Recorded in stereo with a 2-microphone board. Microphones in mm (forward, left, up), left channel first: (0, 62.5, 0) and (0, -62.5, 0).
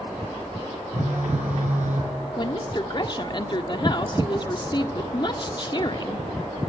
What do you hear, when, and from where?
0.9 s a phone buzzing: 85° right, 7 m
2.4 s a woman speaking: 40° left (ahead or behind), 1.4 m